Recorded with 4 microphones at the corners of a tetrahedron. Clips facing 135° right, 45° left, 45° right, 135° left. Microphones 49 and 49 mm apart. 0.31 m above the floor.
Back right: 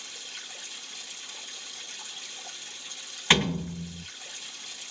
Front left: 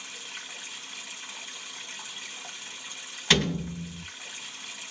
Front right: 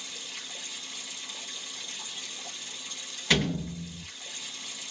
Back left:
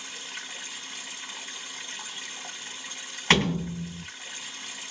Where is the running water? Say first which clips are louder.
Front left 2 dB, back left 3 dB; 100° left, 1.5 m.